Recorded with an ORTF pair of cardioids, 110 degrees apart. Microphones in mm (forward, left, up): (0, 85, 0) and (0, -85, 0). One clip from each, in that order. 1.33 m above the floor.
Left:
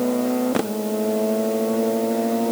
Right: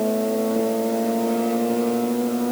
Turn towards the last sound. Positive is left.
No sound to turn to.